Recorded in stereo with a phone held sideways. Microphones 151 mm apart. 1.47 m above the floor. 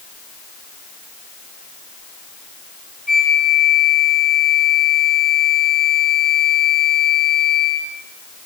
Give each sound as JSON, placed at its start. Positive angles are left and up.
{"t": 3.1, "sound": "a flute", "side_deg": 75, "distance_m": 6.5}